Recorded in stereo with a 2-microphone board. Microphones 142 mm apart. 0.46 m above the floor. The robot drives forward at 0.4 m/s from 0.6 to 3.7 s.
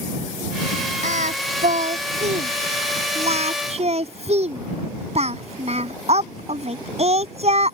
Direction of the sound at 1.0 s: 65° right (ahead or behind).